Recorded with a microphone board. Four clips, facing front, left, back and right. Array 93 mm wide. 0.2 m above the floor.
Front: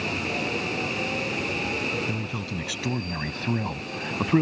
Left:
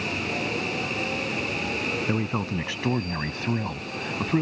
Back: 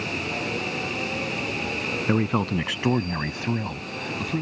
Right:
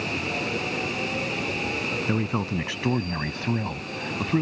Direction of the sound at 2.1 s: Straight behind.